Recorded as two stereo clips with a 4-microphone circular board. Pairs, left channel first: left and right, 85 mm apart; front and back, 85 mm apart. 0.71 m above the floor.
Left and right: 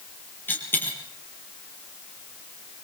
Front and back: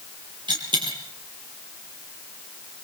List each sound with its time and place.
0.5 s a dropped coin: 160° left, 7 m